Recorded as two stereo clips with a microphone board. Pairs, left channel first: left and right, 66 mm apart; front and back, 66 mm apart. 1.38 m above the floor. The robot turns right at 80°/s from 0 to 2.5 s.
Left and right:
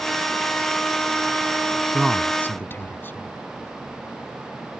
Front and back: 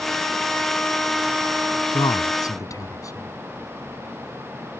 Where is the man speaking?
15° right; by 3.3 s 30° left.